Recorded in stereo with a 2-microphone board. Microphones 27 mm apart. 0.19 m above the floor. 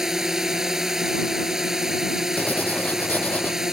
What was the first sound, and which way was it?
A drone, 15° right (ahead or behind).